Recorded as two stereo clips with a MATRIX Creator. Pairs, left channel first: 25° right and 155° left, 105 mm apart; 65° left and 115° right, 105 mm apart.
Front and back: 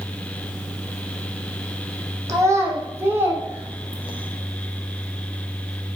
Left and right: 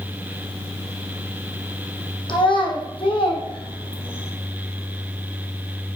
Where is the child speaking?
100° left, 3 m; by 4.3 s 85° left, 3.5 m.